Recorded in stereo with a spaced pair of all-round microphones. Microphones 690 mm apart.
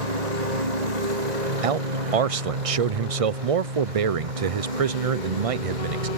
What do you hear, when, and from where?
0.0 s a lawn mower: 60° right (ahead or behind); by 6.2 s 85° right
1.6 s a man speaking: 50° right (ahead or behind)